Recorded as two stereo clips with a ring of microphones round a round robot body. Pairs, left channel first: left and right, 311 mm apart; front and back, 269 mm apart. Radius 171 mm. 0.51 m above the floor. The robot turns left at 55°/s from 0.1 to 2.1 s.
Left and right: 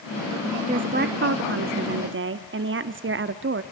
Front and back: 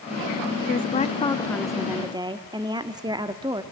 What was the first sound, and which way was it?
A woman speaking, 35° right.